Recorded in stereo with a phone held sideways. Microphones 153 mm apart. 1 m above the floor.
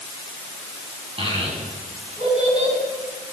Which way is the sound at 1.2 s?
40° right (ahead or behind).